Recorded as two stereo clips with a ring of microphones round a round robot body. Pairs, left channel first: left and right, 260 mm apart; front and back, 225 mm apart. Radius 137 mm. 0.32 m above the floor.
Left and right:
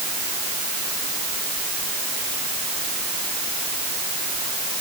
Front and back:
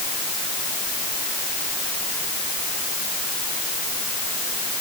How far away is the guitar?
No guitar in this recording.